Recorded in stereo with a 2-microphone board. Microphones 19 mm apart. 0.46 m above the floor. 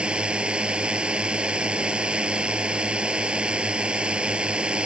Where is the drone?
75° right (ahead or behind).